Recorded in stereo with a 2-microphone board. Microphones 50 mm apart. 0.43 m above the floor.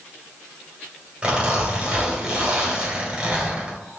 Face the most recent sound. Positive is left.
turn(degrees=-25)  # may be behind; listen again after turning